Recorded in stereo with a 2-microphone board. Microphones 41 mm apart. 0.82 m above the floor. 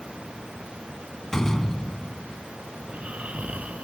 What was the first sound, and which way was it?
A door slam, 15° left (ahead or behind).